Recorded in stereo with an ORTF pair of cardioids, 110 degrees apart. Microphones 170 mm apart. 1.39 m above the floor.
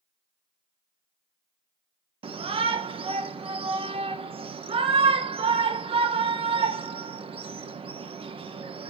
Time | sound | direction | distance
2.2 | a shout | 35° right | 1.8 m